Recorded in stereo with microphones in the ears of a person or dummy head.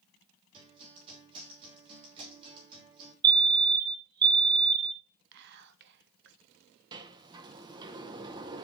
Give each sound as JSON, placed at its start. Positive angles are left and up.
{"t": 0.5, "sound": "a guitar", "side_deg": -30, "distance_m": 3.0}
{"t": 3.2, "sound": "a fire alarm", "side_deg": -15, "distance_m": 0.7}
{"t": 5.3, "sound": "whispering", "side_deg": -50, "distance_m": 0.8}
{"t": 6.9, "sound": "a sliding door", "side_deg": -25, "distance_m": 0.7}